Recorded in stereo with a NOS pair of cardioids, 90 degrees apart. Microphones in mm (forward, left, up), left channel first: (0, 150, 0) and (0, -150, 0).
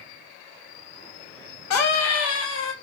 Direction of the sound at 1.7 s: 65° left.